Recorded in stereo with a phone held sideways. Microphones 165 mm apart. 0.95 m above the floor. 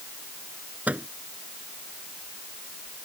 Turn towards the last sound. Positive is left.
turn(degrees=-10)  # may be behind; listen again after turning